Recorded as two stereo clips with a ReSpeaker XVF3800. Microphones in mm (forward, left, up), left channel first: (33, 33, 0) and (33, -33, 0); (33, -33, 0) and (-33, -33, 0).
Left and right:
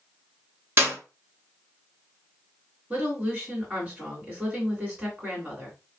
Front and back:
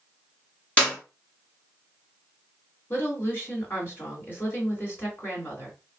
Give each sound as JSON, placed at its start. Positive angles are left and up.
{"t": 0.8, "sound": "a clap", "azimuth_deg": -60, "distance_m": 1.6}
{"t": 2.9, "sound": "a woman speaking", "azimuth_deg": -30, "distance_m": 2.0}